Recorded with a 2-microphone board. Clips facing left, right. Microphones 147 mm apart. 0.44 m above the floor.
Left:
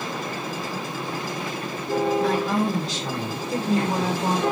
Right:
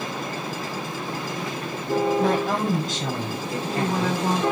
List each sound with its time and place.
2.2 s a woman speaking: 55° right (ahead or behind), 2.0 m
3.5 s a woman speaking: 35° left (ahead or behind), 1.7 m